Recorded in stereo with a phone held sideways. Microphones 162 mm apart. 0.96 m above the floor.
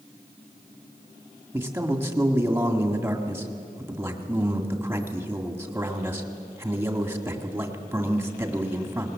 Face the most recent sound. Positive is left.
turn(degrees=-15)  # may be behind; listen again after turning